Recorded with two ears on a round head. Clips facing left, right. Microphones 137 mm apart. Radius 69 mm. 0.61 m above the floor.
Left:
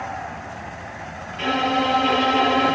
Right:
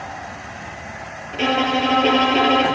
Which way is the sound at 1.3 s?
60° right (ahead or behind).